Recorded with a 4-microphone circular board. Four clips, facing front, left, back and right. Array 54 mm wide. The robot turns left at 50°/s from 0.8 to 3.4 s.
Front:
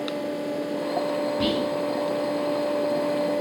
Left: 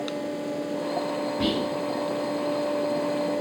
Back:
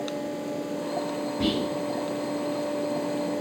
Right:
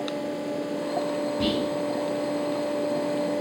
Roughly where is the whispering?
Ahead.